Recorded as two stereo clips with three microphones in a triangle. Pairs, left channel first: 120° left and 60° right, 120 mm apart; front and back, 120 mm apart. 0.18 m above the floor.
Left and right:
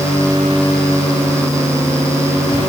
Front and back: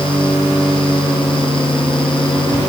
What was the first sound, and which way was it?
Only background noise.